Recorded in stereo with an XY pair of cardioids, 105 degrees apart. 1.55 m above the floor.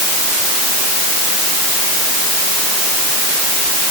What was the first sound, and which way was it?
Only background noise.